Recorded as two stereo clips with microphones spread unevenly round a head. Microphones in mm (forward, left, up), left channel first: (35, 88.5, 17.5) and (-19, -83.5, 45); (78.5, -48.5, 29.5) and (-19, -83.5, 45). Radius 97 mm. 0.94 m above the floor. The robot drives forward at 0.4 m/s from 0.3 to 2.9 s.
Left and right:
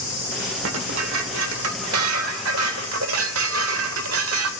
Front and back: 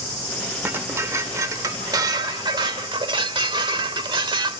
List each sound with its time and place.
0.6 s dishes clattering: 90° right, 1.9 m; by 4.5 s 120° right, 2 m